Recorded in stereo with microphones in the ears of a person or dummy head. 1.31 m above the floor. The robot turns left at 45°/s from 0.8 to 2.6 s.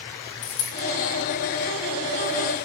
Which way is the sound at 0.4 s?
50° left (ahead or behind).